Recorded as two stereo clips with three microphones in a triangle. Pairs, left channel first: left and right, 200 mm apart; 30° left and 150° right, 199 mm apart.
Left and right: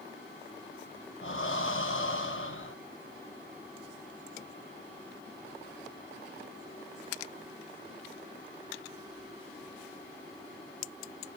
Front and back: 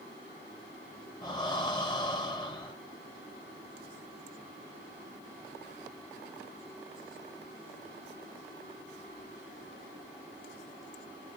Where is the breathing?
95° left, 2.0 m.